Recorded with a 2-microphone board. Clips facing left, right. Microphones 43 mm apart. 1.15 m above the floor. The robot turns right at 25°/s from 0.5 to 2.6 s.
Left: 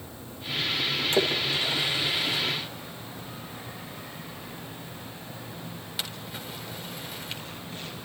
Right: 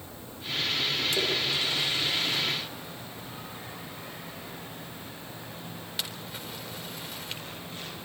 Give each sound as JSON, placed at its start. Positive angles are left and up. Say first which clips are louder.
{"t": 1.1, "sound": "a splash", "louder": "left 3 dB", "side_deg": 40, "distance_m": 4.0}